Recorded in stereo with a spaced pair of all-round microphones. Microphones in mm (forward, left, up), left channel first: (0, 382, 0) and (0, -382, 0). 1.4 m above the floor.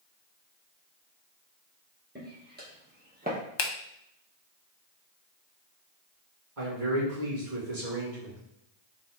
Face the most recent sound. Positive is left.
turn(degrees=-85)